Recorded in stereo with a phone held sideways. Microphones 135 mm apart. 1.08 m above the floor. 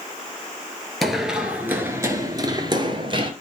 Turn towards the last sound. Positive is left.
turn(degrees=-40)  # may be behind; listen again after turning